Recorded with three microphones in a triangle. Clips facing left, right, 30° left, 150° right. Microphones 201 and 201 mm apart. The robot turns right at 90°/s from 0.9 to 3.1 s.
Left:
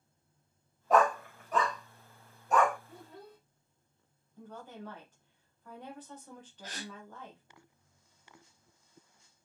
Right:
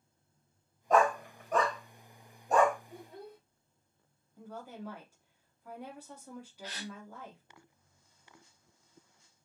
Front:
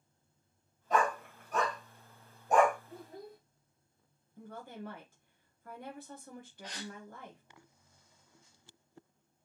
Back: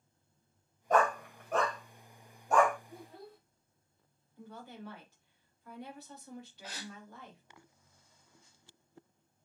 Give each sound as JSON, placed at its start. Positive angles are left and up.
{"t": 0.9, "sound": "a dog barking", "azimuth_deg": 175, "distance_m": 2.0}
{"t": 2.9, "sound": "a child speaking", "azimuth_deg": -35, "distance_m": 1.8}
{"t": 4.4, "sound": "a woman speaking", "azimuth_deg": -10, "distance_m": 1.0}
{"t": 6.6, "sound": "a gasp", "azimuth_deg": 125, "distance_m": 0.9}